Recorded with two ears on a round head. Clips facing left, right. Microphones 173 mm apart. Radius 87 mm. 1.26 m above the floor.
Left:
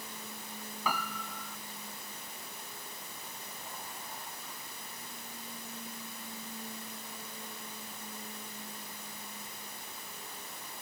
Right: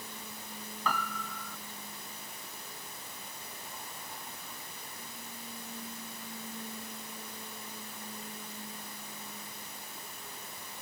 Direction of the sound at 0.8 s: 10° left (ahead or behind).